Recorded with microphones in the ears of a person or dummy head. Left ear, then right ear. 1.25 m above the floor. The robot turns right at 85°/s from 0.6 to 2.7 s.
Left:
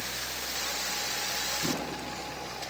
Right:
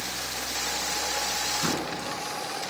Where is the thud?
65° right (ahead or behind), 4 m; by 1.9 s 75° right (ahead or behind), 4 m.